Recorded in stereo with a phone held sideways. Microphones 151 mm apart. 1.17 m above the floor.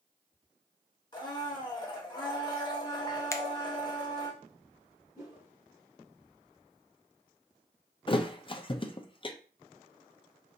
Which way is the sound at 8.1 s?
35° left (ahead or behind).